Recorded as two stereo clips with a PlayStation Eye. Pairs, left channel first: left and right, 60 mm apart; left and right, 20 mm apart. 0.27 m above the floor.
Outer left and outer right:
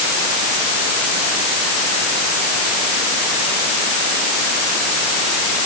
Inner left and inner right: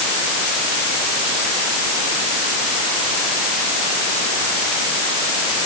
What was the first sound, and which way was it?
Only background noise.